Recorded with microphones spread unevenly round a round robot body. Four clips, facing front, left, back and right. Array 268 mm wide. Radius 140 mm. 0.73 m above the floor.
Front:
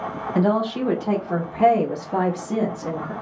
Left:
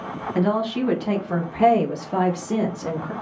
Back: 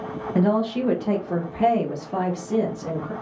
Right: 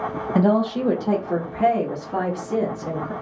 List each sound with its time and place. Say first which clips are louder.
0.3 s a woman speaking: right 3 dB, even; 110° right, 1.2 m; by 3.1 s 80° left, 1.5 m